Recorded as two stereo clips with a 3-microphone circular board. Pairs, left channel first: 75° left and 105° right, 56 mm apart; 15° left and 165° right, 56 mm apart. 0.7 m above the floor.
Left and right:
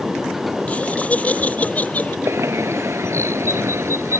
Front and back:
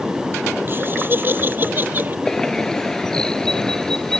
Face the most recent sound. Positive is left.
turn(degrees=-65)